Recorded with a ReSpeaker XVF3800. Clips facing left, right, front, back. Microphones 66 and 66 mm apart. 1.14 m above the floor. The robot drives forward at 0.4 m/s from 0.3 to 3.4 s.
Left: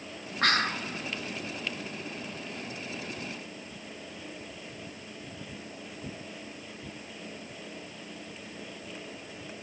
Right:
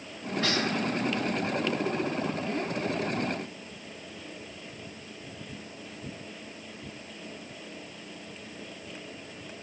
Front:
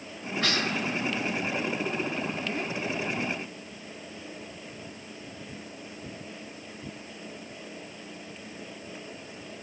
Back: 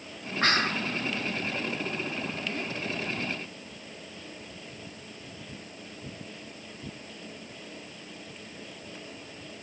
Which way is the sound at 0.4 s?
130° left.